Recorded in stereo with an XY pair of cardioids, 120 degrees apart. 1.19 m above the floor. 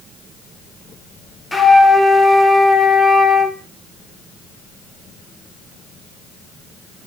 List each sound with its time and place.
1.5 s a flute: 10° left, 0.5 m